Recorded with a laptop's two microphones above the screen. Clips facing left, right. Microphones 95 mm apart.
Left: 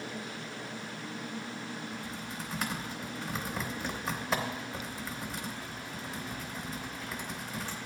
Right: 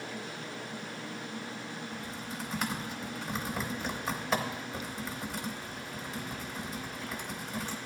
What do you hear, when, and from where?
1.9 s typing on a keyboard: centre (ahead or behind), 0.9 m